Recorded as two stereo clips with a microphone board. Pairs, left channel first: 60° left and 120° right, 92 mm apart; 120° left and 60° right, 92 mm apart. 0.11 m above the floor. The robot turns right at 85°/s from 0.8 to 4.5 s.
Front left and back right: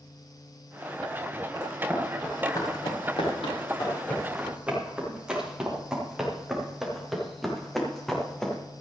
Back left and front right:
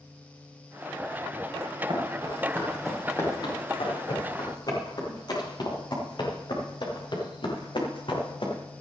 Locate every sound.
1.6 s running footsteps: 75° right, 7 m; by 8.6 s 145° left, 5 m